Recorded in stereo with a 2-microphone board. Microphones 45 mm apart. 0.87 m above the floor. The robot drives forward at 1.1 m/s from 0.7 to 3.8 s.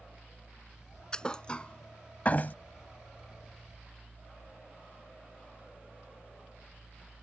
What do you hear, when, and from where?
1.1 s a thud: 15° left (ahead or behind); by 2.5 s 45° left (ahead or behind)